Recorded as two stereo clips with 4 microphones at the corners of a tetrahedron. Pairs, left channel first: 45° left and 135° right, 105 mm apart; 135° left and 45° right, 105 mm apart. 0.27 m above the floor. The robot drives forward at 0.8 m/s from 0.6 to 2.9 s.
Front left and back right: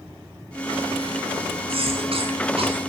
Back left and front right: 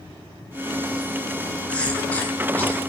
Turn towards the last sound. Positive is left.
turn(degrees=-155)